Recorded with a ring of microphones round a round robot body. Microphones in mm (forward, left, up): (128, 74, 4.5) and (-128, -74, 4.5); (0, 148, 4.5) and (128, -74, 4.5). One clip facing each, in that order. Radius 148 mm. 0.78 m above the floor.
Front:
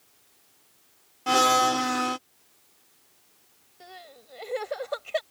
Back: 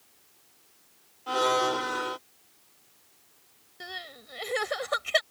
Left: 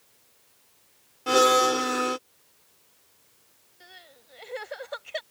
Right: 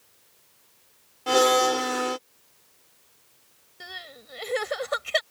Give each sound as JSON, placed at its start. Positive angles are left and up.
{"t": 1.3, "sound": "a blender", "azimuth_deg": 40}
{"t": 3.8, "sound": "crying", "azimuth_deg": -100}